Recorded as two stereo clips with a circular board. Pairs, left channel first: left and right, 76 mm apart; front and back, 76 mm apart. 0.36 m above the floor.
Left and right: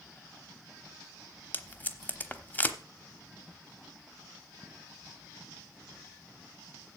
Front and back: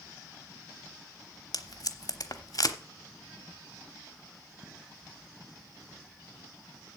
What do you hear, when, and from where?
1.5 s tape being pulled: 25° left, 0.9 m